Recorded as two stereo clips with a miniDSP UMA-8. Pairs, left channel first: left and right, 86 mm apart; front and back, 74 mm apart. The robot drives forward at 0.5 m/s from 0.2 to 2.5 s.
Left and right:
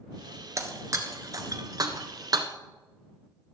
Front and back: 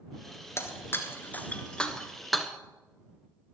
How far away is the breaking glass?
About 1.5 m.